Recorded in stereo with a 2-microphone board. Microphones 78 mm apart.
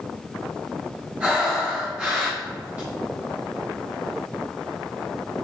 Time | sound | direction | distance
1.2 | breathing | 15° right (ahead or behind) | 1.9 m